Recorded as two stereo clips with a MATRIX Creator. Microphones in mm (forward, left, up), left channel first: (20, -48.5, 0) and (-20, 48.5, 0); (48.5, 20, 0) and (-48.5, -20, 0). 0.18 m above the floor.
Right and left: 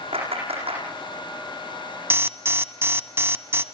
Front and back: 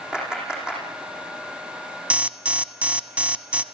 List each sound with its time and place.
0.1 s a clap: 120° left, 9.5 m
2.1 s an alarm: 140° left, 0.8 m